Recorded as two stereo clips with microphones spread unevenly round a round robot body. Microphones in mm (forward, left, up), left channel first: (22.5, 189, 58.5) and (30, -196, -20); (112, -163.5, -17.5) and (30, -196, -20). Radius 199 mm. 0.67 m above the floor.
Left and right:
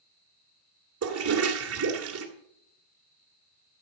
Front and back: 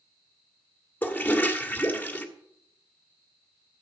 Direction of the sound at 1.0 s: 50° right.